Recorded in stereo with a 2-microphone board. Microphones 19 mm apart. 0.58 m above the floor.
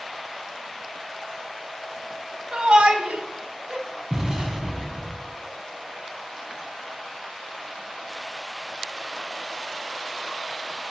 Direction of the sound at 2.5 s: 60° right (ahead or behind).